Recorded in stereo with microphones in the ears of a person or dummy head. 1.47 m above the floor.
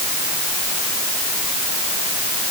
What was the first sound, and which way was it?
Only background noise.